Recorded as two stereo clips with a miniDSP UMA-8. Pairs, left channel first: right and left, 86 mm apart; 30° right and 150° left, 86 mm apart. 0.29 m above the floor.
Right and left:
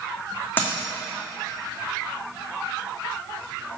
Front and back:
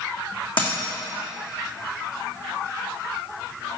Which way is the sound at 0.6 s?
20° right.